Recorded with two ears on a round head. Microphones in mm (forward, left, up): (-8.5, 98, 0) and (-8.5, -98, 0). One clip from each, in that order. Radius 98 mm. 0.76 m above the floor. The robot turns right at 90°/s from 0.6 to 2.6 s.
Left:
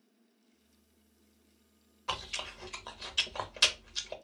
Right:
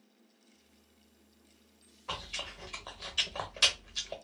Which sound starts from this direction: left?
Chewing, at 2.1 s.